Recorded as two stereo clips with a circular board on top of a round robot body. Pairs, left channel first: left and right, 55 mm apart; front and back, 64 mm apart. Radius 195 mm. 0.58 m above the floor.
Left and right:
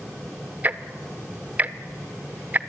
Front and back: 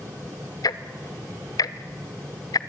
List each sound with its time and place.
0.6 s ticking: 25° right, 0.6 m